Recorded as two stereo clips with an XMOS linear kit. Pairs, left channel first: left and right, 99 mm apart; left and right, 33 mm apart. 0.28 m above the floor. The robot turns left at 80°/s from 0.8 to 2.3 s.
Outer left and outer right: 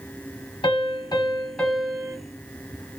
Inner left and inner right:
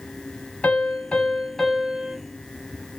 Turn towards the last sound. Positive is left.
turn(degrees=-45)